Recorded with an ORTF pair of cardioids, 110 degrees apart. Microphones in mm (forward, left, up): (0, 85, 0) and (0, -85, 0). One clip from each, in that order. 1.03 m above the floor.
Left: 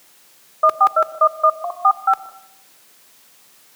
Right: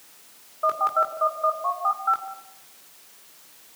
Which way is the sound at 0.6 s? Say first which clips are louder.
Left 7 dB; 50° left.